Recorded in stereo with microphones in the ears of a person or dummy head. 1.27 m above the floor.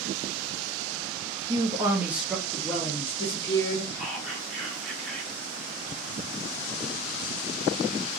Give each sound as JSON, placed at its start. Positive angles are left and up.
{"t": 1.5, "sound": "a man speaking", "side_deg": -25, "distance_m": 0.6}
{"t": 4.0, "sound": "whispering", "side_deg": -10, "distance_m": 1.8}